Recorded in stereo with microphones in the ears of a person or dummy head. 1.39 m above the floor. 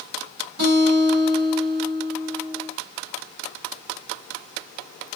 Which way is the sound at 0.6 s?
50° right (ahead or behind).